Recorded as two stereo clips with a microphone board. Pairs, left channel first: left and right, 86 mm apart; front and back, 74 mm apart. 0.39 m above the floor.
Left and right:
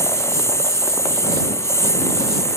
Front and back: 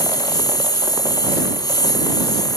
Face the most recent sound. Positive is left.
turn(degrees=35)